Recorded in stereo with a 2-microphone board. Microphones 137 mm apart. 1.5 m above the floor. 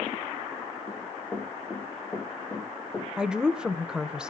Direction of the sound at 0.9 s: 15° left (ahead or behind).